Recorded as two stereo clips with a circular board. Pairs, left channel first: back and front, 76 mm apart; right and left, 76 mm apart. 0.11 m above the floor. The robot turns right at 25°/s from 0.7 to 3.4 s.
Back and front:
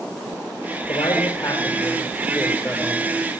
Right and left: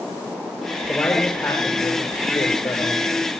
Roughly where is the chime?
I don't hear a chime.